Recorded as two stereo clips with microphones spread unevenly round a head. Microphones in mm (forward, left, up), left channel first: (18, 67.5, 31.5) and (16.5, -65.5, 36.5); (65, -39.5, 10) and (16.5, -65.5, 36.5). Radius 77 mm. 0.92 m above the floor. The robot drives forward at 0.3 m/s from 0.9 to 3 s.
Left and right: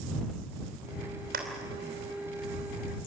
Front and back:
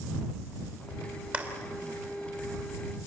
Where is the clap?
85° right, 3 m.